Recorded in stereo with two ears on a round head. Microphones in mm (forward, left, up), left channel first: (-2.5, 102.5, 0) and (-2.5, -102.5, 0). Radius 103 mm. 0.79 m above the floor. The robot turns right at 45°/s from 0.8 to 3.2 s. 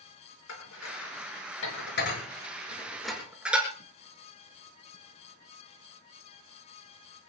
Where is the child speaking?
No child speaking in this recording.